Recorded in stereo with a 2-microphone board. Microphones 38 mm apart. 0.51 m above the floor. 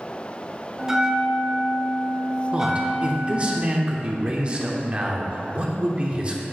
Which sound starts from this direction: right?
A man speaking, at 2.5 s.